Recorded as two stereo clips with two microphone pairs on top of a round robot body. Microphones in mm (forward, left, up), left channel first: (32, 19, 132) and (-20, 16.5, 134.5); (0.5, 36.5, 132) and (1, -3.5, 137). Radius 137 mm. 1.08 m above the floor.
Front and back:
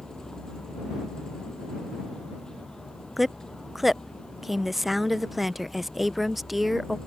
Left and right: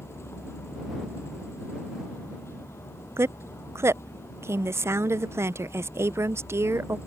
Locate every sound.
0.0 s a vehicle: 80° left
3.2 s a woman speaking: 90° right